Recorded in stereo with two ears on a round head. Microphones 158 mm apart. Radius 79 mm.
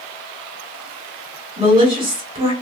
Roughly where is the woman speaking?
Right.